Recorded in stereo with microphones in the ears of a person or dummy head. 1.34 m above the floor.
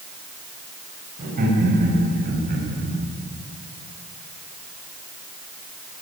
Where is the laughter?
45° right (ahead or behind), 8.5 m.